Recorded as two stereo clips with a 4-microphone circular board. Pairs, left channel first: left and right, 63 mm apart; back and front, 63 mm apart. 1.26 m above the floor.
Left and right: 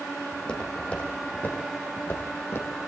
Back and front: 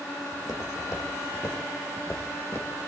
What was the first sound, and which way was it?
Footsteps, 165° left.